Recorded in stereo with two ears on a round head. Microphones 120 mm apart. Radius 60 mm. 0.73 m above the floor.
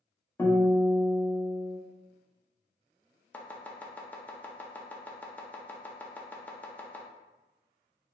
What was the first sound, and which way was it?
A guitar, 15° left (ahead or behind).